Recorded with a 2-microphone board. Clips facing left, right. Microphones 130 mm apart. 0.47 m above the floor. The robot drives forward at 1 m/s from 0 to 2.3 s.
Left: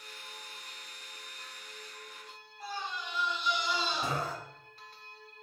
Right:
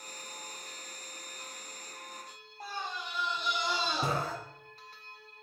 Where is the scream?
40° right (ahead or behind), 1.7 m.